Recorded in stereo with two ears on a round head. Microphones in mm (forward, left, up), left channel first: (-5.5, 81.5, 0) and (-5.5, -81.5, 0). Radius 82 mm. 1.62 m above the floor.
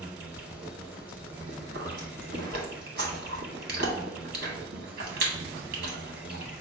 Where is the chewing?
50° right (ahead or behind), 1.5 m.